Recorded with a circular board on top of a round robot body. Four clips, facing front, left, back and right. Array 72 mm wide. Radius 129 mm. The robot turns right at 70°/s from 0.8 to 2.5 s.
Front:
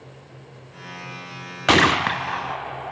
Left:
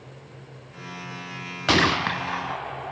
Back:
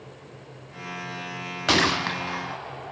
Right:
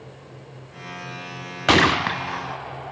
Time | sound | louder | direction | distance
1.7 | a gunshot | right 3 dB, front 6 dB | 35° right | 0.6 m